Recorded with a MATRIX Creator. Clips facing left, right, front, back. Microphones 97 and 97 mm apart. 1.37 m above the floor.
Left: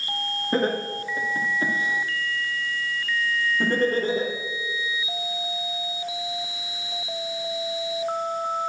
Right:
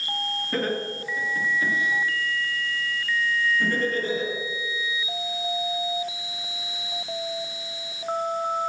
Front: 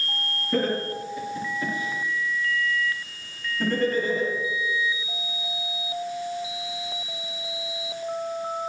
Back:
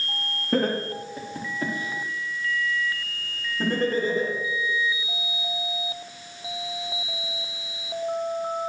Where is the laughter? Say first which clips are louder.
Left 4 dB, back 1 dB; 150° left, 2.5 m; by 4.3 s 125° left, 4.5 m.